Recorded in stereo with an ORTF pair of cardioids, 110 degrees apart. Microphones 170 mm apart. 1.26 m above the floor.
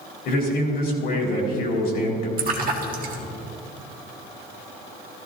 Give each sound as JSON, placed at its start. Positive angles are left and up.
{"t": 0.2, "sound": "a man speaking", "azimuth_deg": 65, "distance_m": 4.0}
{"t": 2.4, "sound": "a splash", "azimuth_deg": -55, "distance_m": 1.7}